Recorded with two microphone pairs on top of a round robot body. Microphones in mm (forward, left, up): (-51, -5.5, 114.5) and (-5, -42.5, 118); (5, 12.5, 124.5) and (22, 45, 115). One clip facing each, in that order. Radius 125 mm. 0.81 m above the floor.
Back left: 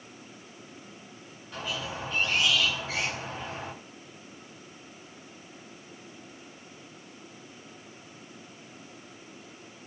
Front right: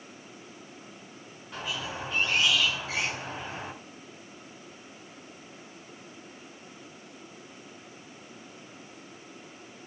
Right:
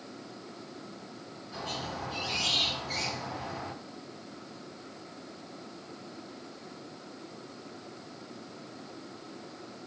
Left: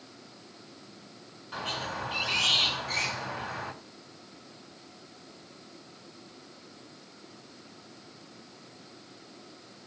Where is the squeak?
45° left, 5.5 m.